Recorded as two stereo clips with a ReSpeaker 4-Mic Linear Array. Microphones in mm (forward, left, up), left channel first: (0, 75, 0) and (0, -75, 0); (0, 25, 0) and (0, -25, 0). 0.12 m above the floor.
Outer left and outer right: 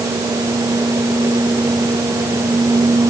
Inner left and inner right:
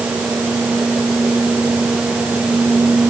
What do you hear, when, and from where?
Only background noise.